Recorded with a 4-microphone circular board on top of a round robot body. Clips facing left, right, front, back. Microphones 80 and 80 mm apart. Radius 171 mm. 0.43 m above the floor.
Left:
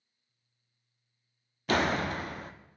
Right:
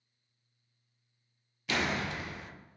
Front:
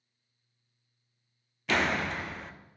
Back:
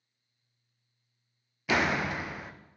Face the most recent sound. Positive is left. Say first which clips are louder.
# left 5 dB, back 1 dB
turn(degrees=100)